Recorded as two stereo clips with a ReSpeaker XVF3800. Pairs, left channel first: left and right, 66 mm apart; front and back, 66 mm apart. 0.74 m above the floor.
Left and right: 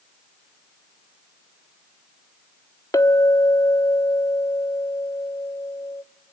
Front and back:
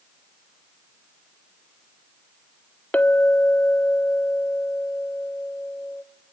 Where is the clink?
65° left, 1.2 m.